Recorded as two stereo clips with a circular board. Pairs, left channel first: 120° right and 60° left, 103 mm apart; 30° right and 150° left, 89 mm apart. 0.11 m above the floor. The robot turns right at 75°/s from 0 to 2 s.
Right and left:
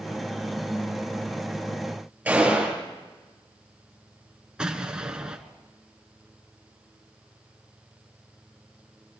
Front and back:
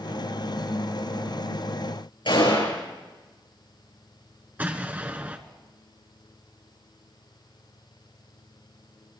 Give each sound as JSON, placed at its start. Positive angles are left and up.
{"t": 2.2, "sound": "a gunshot", "azimuth_deg": -15, "distance_m": 7.0}
{"t": 4.6, "sound": "an explosion", "azimuth_deg": 125, "distance_m": 1.1}